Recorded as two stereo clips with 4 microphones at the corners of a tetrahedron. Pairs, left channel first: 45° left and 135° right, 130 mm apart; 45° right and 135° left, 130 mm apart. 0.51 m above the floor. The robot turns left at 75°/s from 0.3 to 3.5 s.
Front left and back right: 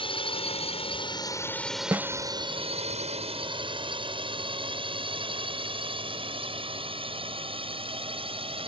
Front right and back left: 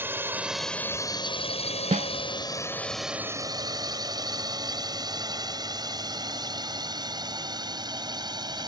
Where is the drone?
65° left; by 8.7 s 170° right.